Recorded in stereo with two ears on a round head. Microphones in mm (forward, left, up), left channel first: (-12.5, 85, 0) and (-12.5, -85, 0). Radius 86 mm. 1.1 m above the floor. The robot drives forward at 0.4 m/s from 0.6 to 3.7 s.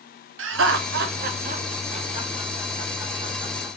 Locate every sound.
0.4 s laughter: 75° right (ahead or behind), 0.5 m; by 3.8 s 20° right (ahead or behind), 1.5 m